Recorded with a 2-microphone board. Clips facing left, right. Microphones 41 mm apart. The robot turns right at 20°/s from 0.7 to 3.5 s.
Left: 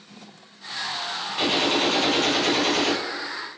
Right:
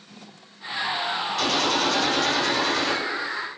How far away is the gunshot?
About 1.1 m.